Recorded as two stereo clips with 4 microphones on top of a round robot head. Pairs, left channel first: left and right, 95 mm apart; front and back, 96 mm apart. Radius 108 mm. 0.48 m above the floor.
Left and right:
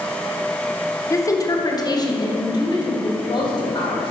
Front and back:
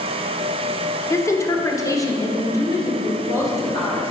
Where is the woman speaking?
45° left, 1.2 m; by 4.1 s 55° left, 3.5 m.